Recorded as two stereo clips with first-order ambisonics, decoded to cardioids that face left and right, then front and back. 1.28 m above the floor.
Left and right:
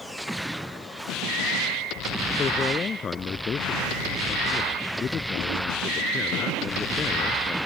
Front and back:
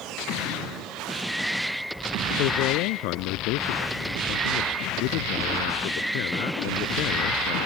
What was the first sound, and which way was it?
A man speaking, 25° left.